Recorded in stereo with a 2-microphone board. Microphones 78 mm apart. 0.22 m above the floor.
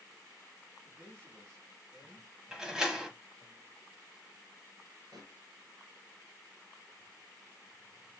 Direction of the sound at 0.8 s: 25° right (ahead or behind).